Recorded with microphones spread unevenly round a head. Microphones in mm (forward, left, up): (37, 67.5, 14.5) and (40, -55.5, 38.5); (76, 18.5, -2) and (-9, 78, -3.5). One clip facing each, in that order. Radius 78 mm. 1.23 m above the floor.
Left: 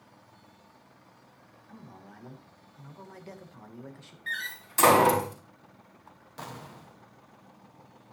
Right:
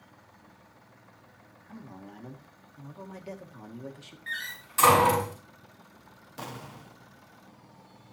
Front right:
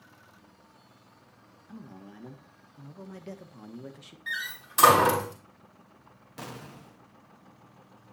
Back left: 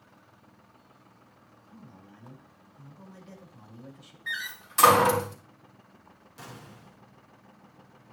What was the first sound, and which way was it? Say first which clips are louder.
A man speaking: right 4 dB, front right 6 dB; 15° right.